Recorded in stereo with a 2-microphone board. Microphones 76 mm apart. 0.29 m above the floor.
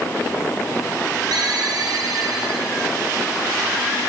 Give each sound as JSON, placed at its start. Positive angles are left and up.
{"t": 1.3, "sound": "a ringtone", "side_deg": -65, "distance_m": 6.0}